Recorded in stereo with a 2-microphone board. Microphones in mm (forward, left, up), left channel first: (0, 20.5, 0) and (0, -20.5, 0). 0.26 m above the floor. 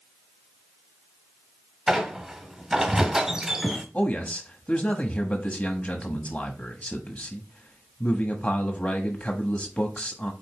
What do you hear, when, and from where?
1.9 s a squeak: 15° right (ahead or behind), 1.4 m
3.9 s a man speaking: 35° left (ahead or behind), 1.2 m